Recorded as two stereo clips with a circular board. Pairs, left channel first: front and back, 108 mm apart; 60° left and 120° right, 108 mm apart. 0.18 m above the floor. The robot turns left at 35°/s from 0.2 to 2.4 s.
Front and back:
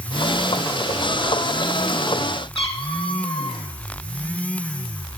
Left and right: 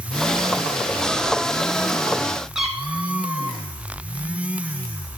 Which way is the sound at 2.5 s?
35° right.